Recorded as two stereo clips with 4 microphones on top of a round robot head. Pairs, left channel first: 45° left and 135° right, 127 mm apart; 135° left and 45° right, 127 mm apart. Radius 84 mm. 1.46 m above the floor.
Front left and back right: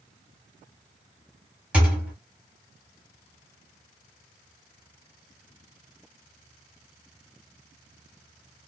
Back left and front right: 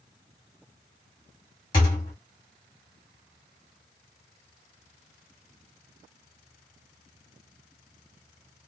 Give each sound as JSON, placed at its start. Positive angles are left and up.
{"t": 1.7, "sound": "a thud", "azimuth_deg": 155, "distance_m": 0.9}